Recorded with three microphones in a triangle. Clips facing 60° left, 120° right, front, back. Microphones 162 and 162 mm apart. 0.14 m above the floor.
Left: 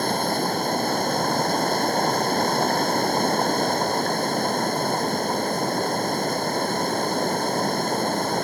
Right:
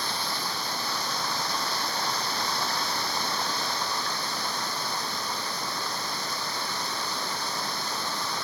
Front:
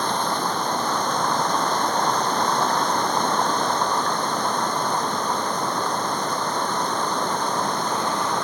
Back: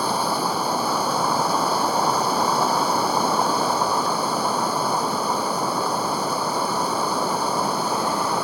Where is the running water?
100° left.